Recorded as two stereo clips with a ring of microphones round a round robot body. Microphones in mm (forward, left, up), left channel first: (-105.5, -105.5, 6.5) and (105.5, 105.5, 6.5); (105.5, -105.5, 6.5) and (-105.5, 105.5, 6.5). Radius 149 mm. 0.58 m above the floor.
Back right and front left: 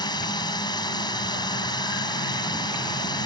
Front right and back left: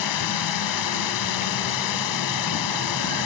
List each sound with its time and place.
0.0 s a drone: 60° right